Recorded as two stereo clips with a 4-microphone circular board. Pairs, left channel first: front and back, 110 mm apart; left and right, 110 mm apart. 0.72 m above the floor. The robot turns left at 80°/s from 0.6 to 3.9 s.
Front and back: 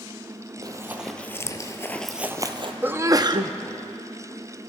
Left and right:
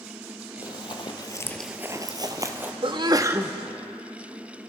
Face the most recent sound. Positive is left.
turn(degrees=165)